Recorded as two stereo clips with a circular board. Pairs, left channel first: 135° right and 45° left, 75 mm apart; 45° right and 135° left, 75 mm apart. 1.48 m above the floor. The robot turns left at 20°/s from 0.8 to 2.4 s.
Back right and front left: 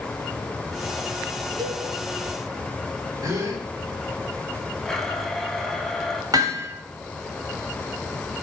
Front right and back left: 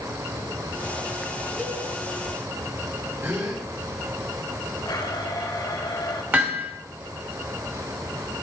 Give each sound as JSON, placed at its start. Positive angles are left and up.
{"t": 1.6, "sound": "a cowbell", "azimuth_deg": 60, "distance_m": 4.5}
{"t": 3.2, "sound": "a gasp", "azimuth_deg": 85, "distance_m": 4.5}
{"t": 4.8, "sound": "a blender", "azimuth_deg": -45, "distance_m": 2.5}
{"t": 6.3, "sound": "hammering", "azimuth_deg": 70, "distance_m": 3.0}